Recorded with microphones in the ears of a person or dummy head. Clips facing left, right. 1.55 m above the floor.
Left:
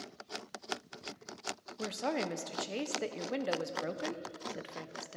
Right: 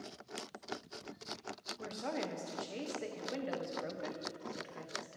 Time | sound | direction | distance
1.8 | a woman speaking | 55° left (ahead or behind) | 0.5 m